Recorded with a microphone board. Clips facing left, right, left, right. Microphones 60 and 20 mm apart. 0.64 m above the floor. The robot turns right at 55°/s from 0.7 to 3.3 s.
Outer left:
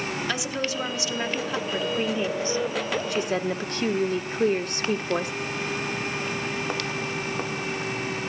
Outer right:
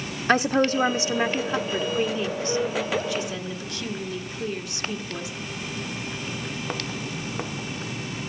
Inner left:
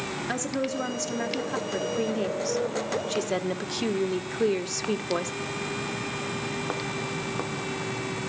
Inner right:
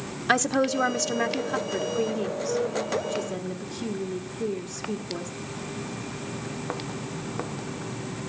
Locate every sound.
0.3 s a woman speaking: 40° right (ahead or behind), 1.1 m; by 5.3 s 50° left (ahead or behind), 1.1 m